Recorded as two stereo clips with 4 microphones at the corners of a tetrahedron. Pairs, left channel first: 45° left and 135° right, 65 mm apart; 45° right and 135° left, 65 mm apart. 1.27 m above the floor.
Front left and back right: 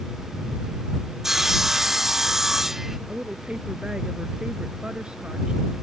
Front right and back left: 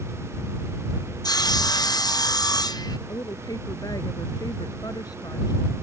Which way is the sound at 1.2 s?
50° right.